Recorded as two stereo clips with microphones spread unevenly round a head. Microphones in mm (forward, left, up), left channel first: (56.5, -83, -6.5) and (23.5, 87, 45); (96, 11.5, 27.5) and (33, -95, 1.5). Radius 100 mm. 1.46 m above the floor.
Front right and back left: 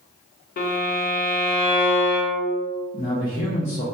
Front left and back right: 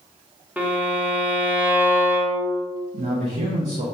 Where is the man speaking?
130° right, 0.6 m.